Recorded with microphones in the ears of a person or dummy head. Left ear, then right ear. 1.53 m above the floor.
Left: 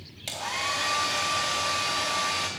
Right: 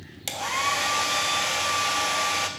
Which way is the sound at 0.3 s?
15° right (ahead or behind).